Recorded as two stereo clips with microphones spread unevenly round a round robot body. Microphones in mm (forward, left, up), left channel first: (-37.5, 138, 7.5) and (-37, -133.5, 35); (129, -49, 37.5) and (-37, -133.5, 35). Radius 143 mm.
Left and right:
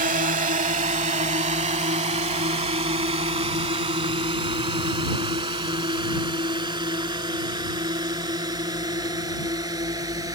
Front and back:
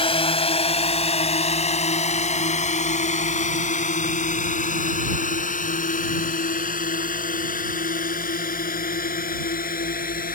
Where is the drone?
30° right; by 10.4 s 10° right.